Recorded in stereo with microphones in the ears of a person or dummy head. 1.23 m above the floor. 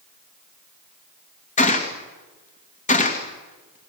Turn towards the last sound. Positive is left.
turn(degrees=30)  # may be behind; listen again after turning